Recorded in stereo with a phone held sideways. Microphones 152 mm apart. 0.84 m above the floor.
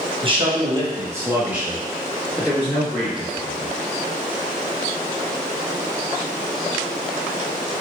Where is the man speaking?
35° right (ahead or behind), 0.8 m; by 3.7 s 15° left (ahead or behind), 1.7 m.